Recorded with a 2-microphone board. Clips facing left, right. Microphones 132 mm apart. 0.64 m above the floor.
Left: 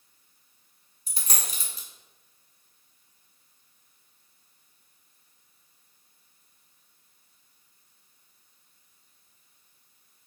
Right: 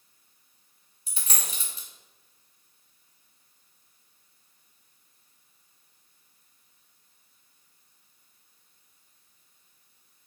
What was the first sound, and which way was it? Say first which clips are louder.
A dropped coin: left 1 dB; 45° left (ahead or behind).